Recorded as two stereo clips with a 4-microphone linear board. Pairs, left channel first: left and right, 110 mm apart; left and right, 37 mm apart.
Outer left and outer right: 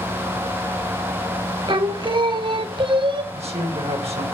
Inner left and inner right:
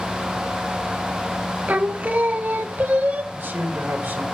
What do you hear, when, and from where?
1.7 s singing: 50° right (ahead or behind), 0.9 m
3.3 s a man speaking: 70° right (ahead or behind), 2.5 m